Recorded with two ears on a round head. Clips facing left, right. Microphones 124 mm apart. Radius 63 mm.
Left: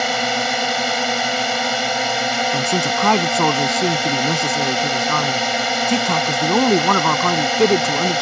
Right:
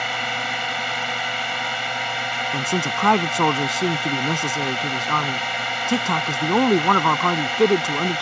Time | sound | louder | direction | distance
0.0 | a drone | left 7 dB | 45° left (ahead or behind) | ?
2.5 | a man speaking | left 5 dB | 5° left (ahead or behind) | ?